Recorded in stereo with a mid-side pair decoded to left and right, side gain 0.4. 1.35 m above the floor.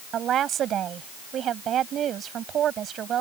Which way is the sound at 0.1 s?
70° right.